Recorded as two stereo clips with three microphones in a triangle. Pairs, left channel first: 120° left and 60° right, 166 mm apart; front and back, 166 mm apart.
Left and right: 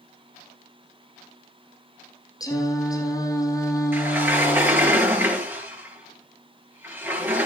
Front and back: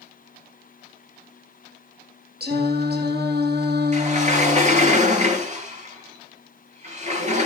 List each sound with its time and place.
2.4 s singing: 170° right, 3.5 m
3.9 s a sliding door: 135° right, 5.5 m